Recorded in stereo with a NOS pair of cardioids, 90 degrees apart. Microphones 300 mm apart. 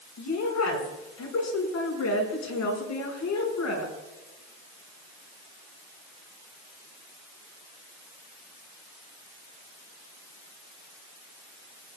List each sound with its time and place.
0.2 s a woman speaking: 65° left, 5 m